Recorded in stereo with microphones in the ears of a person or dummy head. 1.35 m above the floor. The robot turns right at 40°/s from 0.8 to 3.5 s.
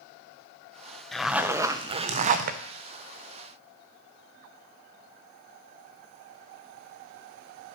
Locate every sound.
1.1 s a zipper: straight behind, 0.6 m; by 2.6 s 120° right, 0.6 m